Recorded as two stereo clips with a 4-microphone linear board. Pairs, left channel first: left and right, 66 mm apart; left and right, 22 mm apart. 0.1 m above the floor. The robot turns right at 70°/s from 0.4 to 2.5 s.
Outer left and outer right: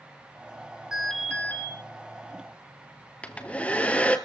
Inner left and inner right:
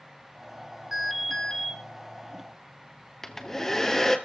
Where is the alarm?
10° right, 5 m; by 1.7 s 45° left, 5 m.